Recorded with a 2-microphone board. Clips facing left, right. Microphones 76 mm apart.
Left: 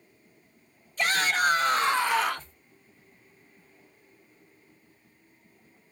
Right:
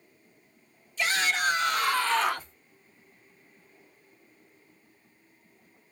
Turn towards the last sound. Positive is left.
turn(degrees=-25)  # may be behind; listen again after turning